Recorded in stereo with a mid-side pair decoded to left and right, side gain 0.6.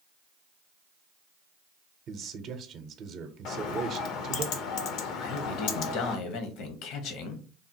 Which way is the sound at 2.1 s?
55° right.